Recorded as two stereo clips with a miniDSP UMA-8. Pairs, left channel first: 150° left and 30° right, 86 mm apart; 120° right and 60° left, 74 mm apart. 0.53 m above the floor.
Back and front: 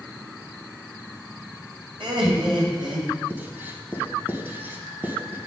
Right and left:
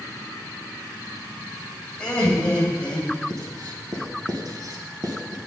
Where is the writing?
35° left, 0.9 m.